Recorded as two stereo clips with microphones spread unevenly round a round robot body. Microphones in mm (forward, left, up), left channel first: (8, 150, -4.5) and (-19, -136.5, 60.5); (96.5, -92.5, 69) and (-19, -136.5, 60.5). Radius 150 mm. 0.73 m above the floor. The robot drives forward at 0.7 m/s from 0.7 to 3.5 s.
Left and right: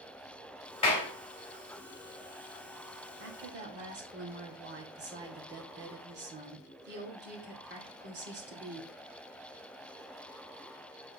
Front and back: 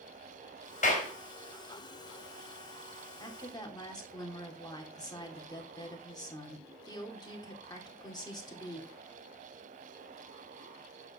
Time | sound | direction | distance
0.8 | a clap | 15° left | 3 m
3.2 | a woman speaking | 35° right | 3 m